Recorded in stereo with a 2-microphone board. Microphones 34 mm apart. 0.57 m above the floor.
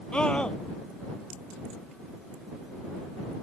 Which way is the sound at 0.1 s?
25° left (ahead or behind).